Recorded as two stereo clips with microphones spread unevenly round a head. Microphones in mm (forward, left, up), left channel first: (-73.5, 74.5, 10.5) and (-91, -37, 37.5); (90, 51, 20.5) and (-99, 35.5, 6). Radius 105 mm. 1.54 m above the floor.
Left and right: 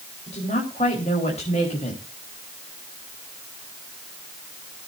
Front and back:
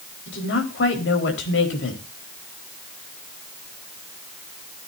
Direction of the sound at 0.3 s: 25° left.